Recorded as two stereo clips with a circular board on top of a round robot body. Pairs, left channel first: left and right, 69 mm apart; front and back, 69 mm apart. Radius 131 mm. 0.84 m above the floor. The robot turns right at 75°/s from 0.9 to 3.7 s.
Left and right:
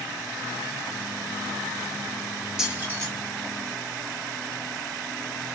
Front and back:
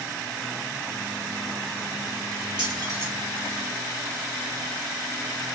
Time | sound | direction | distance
2.6 | keys jangling | 170° right | 1.2 m